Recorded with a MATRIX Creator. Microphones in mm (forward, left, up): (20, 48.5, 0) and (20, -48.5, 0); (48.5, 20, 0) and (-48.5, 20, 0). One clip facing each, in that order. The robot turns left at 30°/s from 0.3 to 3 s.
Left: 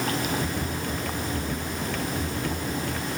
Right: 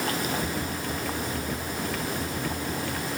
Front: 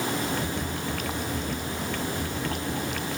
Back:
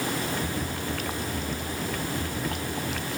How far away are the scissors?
I don't hear scissors.